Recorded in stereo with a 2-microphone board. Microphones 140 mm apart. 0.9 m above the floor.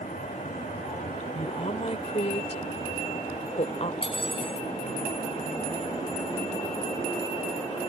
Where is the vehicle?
75° left (ahead or behind); by 7.9 s 35° left (ahead or behind).